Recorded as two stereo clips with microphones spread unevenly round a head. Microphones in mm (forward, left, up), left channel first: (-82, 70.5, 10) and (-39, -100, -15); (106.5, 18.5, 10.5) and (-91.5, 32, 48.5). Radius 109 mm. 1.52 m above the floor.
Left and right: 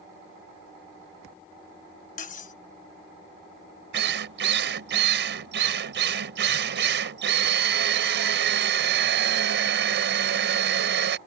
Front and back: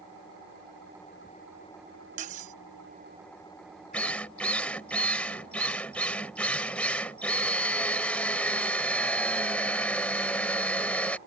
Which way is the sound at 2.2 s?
135° left.